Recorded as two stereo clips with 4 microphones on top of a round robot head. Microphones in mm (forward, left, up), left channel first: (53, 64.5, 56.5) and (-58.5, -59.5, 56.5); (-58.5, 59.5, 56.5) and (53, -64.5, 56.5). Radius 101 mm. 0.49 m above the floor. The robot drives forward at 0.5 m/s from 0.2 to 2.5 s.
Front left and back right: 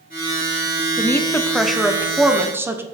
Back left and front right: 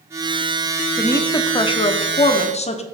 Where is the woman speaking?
85° left, 0.9 m; by 2.8 s 155° left, 1.2 m.